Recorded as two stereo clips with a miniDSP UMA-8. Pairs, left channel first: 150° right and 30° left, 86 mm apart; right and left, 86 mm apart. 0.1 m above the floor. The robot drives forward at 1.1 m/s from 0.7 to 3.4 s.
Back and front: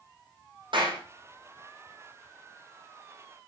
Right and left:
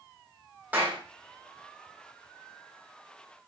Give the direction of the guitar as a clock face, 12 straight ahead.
No guitar in this recording.